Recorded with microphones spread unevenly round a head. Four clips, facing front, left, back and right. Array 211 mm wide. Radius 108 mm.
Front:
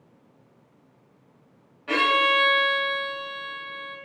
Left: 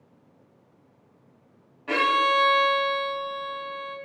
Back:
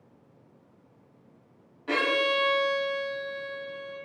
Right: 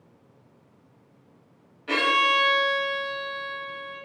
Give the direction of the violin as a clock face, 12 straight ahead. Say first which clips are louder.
Left 1 dB, front 4 dB; 8 o'clock.